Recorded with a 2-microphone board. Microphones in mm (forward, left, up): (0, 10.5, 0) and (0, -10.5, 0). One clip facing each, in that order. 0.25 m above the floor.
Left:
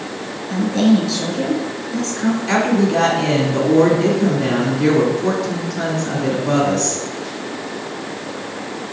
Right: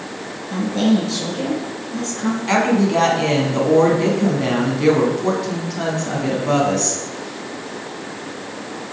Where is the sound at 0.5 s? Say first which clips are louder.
Left 2 dB; 30° left (ahead or behind), 3.5 m.